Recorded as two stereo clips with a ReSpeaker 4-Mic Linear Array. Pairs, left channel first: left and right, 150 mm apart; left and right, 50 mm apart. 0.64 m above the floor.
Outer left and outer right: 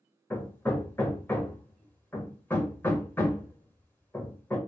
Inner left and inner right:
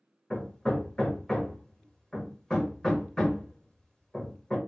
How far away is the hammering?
About 0.6 m.